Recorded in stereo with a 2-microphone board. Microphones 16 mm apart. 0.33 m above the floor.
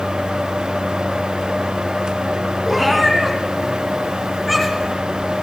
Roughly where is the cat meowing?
Centre.